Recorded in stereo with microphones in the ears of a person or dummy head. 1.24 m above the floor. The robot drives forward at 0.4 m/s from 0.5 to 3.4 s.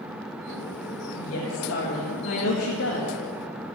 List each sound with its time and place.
1.2 s a woman speaking: 80° left, 2 m; by 3.1 s 65° left (ahead or behind), 2.5 m